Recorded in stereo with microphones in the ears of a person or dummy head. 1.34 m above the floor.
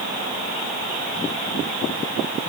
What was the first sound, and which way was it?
Only background noise.